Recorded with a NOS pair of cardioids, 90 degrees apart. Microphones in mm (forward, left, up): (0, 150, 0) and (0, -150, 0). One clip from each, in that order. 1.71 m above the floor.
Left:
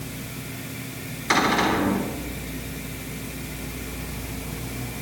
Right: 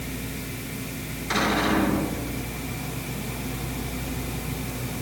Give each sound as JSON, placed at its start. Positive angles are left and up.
{"t": 1.3, "sound": "a cupboard door", "azimuth_deg": 65, "distance_m": 9.0}